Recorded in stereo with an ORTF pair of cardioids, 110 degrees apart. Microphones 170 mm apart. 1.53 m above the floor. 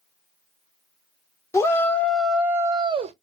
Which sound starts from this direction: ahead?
A shout, at 1.5 s.